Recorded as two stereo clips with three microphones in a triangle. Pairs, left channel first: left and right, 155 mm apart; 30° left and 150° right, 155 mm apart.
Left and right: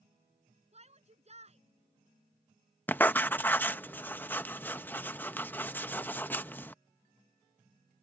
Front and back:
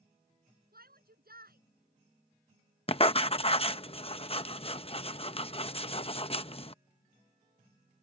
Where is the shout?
135° right.